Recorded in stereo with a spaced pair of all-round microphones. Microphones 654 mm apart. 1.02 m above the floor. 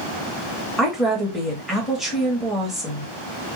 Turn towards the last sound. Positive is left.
turn(degrees=0)  # may be behind; listen again after turning